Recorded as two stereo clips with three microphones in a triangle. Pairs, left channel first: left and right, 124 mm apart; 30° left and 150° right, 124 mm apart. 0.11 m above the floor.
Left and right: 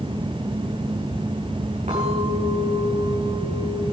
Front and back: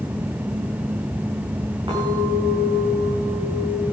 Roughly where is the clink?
Right.